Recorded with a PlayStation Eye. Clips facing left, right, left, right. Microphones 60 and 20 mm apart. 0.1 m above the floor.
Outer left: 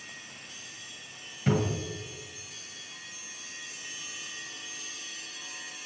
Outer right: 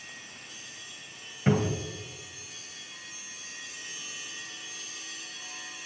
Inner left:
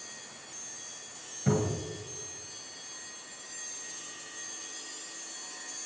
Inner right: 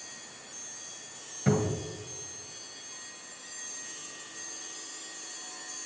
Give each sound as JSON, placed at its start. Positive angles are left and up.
{"t": 1.5, "sound": "a cupboard door", "side_deg": -30, "distance_m": 1.6}